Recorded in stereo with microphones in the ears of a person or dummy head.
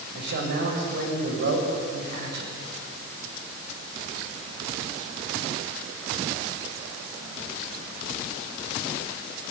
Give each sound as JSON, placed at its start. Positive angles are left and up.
{"t": 0.1, "sound": "a man speaking", "side_deg": -50, "distance_m": 6.0}